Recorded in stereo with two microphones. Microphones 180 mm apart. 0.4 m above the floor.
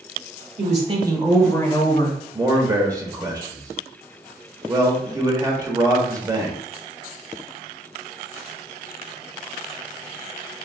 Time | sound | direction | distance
0.6 | a woman speaking | 50° right (ahead or behind) | 1.1 m
2.3 | a man speaking | 20° right (ahead or behind) | 1.1 m